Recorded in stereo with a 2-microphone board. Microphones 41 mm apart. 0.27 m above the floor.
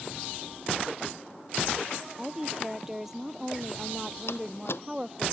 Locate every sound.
2.2 s a woman speaking: 10° right (ahead or behind)
4.3 s a door slam: 70° left (ahead or behind)